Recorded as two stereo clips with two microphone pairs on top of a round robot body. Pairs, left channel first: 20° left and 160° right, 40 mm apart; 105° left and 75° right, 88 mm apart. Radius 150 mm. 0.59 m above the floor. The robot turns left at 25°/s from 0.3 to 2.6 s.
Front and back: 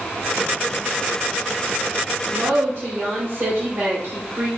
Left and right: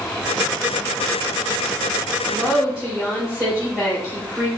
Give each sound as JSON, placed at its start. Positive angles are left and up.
{"t": 2.3, "sound": "a woman speaking", "azimuth_deg": -145, "distance_m": 2.5}